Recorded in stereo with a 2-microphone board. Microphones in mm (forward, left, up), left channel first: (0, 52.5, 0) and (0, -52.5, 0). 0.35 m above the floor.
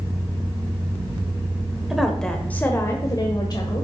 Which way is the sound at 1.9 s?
5° right (ahead or behind).